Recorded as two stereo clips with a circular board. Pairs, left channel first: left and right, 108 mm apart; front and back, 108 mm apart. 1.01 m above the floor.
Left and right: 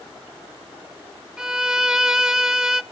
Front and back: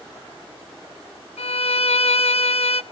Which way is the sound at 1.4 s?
5° right.